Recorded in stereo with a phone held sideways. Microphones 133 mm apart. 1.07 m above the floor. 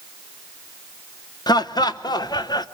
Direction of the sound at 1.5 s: 30° left (ahead or behind).